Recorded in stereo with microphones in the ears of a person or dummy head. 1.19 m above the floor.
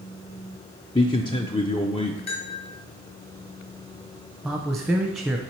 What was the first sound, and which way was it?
A man speaking, 25° left (ahead or behind).